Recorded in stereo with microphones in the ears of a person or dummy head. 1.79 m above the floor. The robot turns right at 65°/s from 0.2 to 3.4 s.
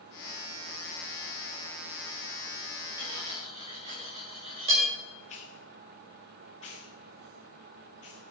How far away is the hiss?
About 1.0 m.